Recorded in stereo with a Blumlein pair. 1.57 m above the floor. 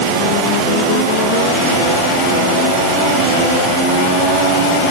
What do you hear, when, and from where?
Only background noise.